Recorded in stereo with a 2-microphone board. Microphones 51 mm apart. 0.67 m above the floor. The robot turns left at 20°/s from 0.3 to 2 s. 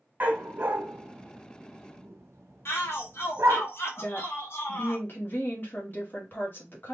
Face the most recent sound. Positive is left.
turn(degrees=40)  # may be behind; listen again after turning